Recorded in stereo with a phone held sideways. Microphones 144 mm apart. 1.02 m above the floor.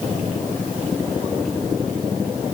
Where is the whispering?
I don't hear whispering.